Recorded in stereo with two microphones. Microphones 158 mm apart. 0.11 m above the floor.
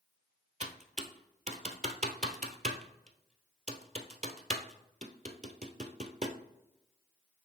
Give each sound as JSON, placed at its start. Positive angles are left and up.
{"t": 0.6, "sound": "typing on a keyboard", "side_deg": -50, "distance_m": 0.9}